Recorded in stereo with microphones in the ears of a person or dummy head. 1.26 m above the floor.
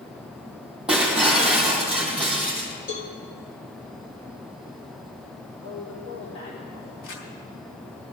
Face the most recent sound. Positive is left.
turn(degrees=80)